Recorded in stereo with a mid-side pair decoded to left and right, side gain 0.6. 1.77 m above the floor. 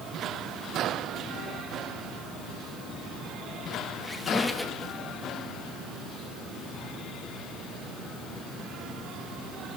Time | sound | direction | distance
4.0 | a squeak | 10° left | 2.5 m